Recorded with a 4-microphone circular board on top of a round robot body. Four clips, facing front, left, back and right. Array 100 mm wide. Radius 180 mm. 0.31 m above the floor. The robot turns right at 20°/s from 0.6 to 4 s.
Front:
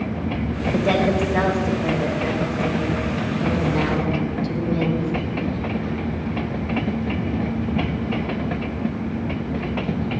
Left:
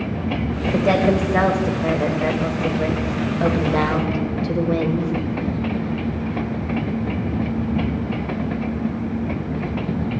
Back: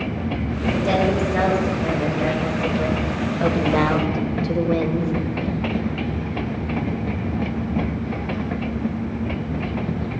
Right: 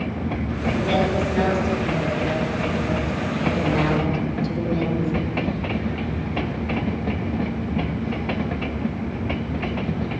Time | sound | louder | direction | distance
0.7 | a woman speaking | left 5 dB, front 1 dB | 70° left | 2.0 m